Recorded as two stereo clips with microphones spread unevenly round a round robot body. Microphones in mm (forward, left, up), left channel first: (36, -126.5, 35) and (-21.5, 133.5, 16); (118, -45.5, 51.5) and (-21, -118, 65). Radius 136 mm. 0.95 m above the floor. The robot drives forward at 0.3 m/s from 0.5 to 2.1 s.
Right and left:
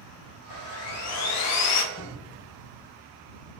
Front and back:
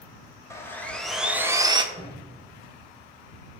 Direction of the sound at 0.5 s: 45° right.